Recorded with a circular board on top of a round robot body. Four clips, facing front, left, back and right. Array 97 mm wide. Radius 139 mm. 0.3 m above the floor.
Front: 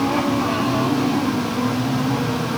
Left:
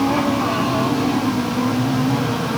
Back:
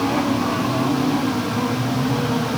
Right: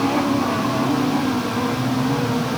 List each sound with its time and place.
Only background noise.